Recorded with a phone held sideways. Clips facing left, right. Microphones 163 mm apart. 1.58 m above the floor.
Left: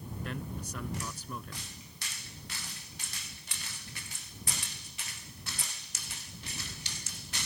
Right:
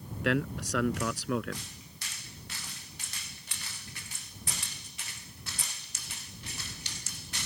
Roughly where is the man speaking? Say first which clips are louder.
Right 12 dB; right.